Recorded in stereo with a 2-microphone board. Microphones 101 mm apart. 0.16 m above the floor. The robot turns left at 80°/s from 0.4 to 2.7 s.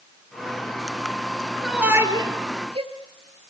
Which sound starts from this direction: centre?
A shout, at 1.6 s.